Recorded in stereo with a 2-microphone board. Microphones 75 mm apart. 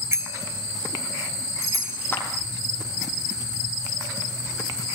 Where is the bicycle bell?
35° right (ahead or behind), 2.5 m; by 2.0 s 55° right (ahead or behind), 4.5 m.